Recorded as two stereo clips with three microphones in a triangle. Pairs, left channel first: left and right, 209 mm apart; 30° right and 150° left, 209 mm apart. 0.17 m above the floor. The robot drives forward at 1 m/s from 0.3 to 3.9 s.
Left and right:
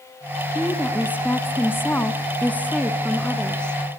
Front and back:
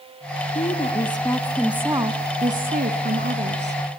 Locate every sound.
0.6 s a woman speaking: 10° left, 1.5 m; by 3.8 s 175° left, 2.5 m